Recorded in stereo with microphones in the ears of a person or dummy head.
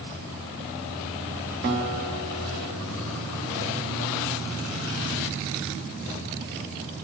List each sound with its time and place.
1.6 s a guitar: 20° right (ahead or behind), 0.8 m